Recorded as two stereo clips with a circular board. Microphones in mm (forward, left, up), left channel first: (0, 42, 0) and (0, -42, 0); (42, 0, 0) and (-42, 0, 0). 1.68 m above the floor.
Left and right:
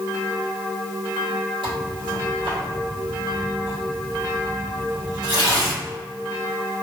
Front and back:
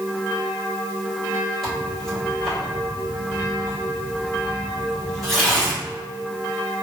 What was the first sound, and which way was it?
Tearing paper, 90° right.